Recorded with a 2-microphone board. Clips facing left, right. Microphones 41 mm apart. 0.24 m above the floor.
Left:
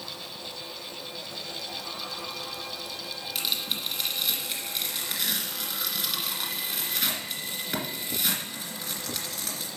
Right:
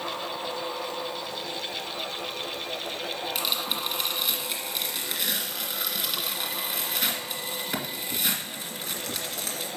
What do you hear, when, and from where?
3.4 s tearing paper: centre (ahead or behind), 2.0 m